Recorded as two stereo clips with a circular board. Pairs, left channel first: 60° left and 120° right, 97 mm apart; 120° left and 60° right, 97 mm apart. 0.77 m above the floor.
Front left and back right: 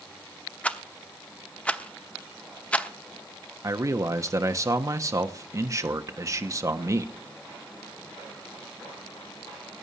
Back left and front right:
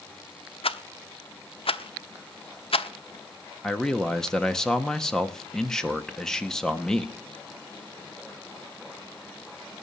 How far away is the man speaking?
About 1.2 m.